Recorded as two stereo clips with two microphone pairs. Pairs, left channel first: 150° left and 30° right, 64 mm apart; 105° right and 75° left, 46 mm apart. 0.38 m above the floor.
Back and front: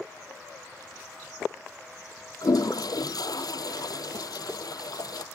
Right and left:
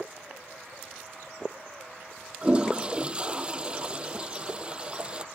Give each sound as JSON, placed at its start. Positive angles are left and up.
{"t": 2.4, "sound": "a toilet flushing", "azimuth_deg": 145}